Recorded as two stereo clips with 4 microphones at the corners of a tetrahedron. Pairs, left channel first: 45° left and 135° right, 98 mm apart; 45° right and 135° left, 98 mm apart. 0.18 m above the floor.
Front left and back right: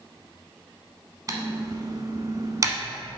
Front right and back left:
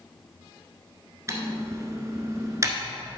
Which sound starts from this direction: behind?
Typing on a keyboard, at 1.3 s.